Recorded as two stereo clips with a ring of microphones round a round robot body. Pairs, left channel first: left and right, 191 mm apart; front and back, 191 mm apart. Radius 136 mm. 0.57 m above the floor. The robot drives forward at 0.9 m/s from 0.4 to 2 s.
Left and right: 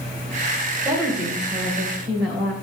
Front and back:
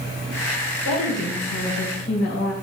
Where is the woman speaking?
35° right, 3 m; by 2.5 s 45° right, 2.5 m.